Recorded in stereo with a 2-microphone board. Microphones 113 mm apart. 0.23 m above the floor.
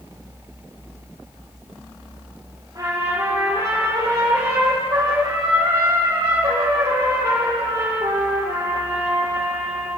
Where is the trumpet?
30° right (ahead or behind), 5 m.